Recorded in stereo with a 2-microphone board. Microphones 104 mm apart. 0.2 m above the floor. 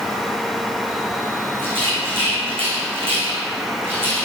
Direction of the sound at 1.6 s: 55° right (ahead or behind).